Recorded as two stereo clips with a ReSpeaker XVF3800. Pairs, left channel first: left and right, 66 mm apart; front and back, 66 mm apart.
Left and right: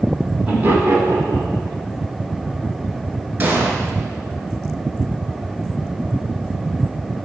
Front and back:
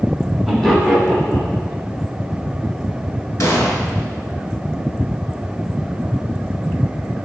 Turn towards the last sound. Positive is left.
turn(degrees=-30)